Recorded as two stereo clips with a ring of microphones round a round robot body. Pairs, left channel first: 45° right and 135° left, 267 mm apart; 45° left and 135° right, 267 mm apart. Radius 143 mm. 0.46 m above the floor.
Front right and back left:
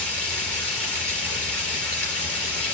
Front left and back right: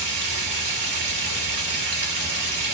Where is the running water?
130° right, 4 m.